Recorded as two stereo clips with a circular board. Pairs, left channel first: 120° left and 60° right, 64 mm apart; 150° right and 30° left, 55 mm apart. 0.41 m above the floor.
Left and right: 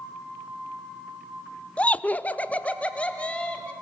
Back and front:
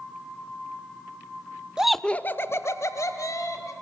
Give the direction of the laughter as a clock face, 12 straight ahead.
9 o'clock.